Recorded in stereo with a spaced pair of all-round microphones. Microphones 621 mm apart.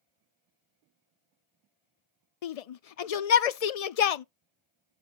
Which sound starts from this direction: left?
A shout, at 2.4 s.